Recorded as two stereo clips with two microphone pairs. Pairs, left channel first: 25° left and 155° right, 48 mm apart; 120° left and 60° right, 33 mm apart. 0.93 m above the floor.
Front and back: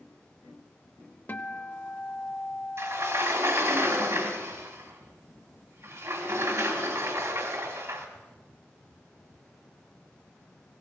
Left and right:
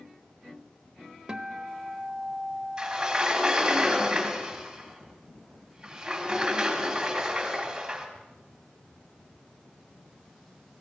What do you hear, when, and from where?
1.3 s a guitar: 5° right, 0.8 m
2.8 s a sliding door: 135° right, 2.5 m